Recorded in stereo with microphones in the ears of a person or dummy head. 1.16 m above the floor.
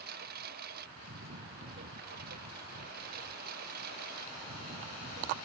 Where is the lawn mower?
55° right (ahead or behind); by 5.5 s 50° right (ahead or behind).